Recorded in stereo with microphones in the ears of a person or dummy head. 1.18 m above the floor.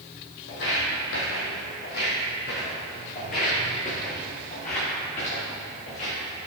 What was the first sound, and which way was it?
Footsteps, 50° left (ahead or behind).